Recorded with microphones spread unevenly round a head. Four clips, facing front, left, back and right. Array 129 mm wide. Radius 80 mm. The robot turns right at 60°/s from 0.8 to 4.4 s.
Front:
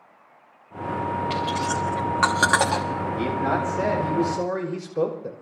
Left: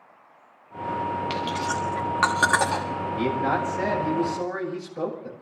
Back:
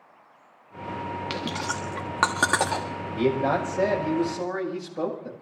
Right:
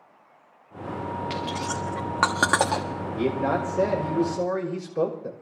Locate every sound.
1.3 s chewing: 175° right, 1.7 m; by 2.8 s 80° right, 1.7 m
3.1 s a man speaking: 130° right, 5 m; by 5.3 s 55° right, 5 m